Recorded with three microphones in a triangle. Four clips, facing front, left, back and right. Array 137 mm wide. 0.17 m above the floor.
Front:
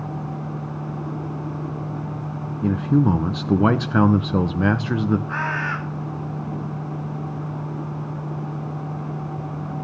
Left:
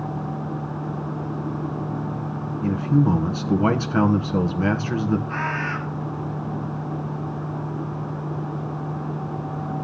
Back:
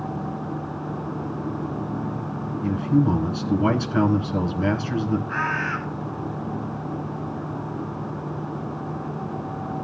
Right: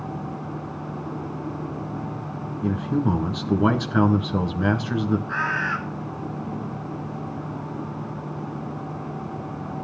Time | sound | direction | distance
2.6 | a man speaking | 15° left | 1.8 m
5.3 | a bird | 15° left | 2.5 m